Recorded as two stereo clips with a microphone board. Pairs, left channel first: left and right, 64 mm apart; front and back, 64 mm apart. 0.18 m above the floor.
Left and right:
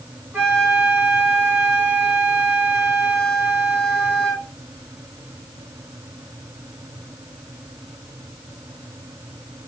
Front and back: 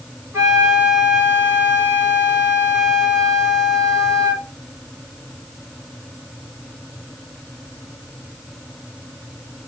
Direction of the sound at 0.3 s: 150° right.